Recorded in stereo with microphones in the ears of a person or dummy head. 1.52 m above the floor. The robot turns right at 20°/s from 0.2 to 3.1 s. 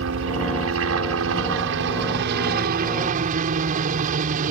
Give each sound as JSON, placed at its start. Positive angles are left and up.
{"t": 0.0, "sound": "a helicopter", "azimuth_deg": -105}